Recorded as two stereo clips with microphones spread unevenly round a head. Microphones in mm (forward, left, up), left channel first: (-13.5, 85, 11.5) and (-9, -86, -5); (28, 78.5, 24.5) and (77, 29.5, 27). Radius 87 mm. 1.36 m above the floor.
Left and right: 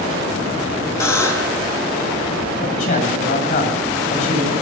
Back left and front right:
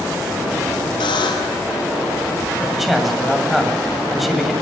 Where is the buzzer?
165° left, 4 m.